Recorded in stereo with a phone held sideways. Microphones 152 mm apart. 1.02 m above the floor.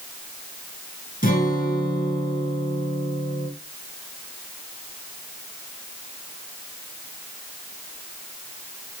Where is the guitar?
70° left (ahead or behind), 5 m.